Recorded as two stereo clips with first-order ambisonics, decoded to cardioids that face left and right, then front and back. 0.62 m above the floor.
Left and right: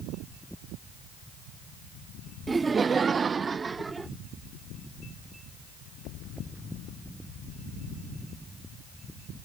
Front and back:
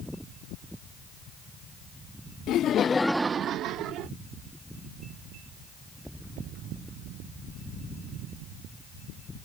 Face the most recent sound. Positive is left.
turn(degrees=-165)